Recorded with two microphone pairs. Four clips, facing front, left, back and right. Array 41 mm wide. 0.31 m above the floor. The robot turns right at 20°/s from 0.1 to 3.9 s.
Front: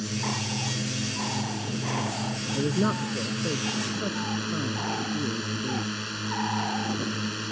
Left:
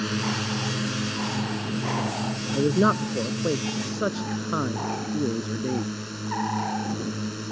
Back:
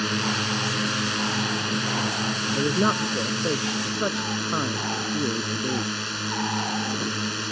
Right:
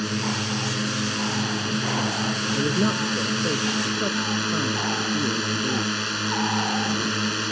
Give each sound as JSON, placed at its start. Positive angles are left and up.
{"t": 0.0, "sound": "a drone", "azimuth_deg": 175}
{"t": 2.5, "sound": "a man speaking", "azimuth_deg": 115}